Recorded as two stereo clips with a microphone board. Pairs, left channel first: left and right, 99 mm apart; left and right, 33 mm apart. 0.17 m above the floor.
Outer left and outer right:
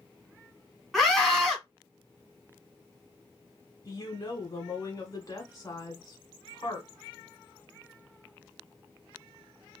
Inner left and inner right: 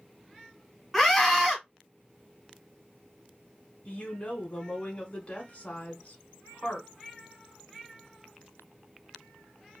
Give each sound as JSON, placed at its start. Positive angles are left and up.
{"t": 0.9, "sound": "a scream", "side_deg": 0, "distance_m": 1.3}
{"t": 3.9, "sound": "a woman speaking", "side_deg": 35, "distance_m": 1.2}